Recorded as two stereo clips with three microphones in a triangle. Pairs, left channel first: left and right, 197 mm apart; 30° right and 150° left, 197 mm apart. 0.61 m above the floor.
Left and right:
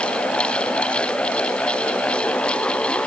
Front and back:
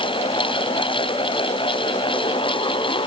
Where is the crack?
No crack in this recording.